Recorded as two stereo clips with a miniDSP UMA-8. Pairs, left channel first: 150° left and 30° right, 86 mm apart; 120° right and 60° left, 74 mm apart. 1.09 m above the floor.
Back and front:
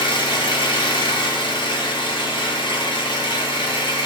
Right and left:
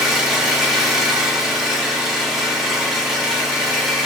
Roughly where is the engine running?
Behind left.